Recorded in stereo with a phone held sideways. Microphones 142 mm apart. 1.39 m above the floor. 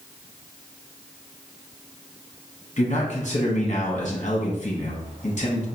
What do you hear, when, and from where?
2.8 s a man speaking: 55° left (ahead or behind), 1.0 m